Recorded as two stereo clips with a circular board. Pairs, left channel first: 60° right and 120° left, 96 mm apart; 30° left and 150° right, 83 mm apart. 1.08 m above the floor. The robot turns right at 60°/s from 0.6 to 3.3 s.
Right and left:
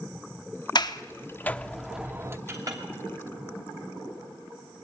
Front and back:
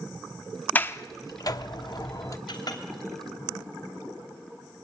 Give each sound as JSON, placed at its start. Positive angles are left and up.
{"t": 0.8, "sound": "a sliding door", "azimuth_deg": -35, "distance_m": 0.8}
{"t": 2.5, "sound": "a clink", "azimuth_deg": 55, "distance_m": 2.5}